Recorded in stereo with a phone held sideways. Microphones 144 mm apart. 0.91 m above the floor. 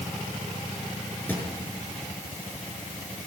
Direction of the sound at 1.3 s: 15° left (ahead or behind).